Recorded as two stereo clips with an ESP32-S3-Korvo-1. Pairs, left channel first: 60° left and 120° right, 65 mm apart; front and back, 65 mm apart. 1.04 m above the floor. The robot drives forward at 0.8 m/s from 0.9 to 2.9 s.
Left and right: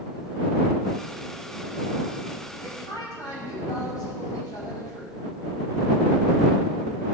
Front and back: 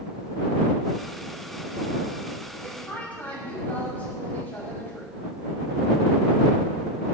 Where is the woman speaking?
65° left, 6 m.